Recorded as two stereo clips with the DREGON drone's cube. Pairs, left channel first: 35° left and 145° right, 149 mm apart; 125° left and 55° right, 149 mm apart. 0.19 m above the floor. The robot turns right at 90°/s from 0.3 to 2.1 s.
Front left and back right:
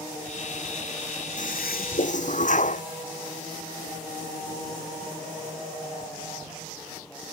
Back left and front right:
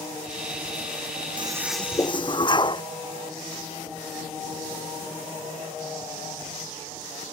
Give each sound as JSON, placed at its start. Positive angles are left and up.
{"t": 1.4, "sound": "a toilet flushing", "azimuth_deg": 0}